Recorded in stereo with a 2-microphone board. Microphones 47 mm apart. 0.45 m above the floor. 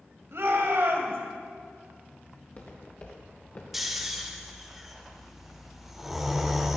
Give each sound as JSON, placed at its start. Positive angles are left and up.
{"t": 0.3, "sound": "a shout", "side_deg": -65, "distance_m": 2.5}
{"t": 2.4, "sound": "footsteps", "side_deg": 40, "distance_m": 3.5}
{"t": 3.7, "sound": "snoring", "side_deg": -5, "distance_m": 1.1}